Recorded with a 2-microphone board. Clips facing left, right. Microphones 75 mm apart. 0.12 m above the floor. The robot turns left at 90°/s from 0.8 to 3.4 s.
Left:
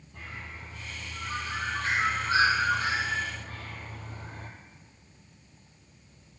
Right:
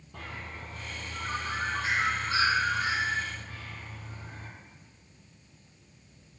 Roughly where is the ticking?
I don't hear ticking.